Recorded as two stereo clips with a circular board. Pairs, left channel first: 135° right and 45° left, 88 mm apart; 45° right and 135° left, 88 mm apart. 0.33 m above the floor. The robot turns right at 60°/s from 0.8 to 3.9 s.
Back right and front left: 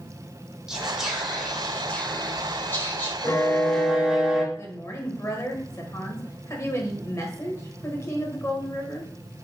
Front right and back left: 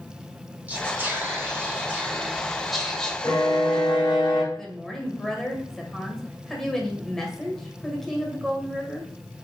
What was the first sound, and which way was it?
Whispering, 110° left.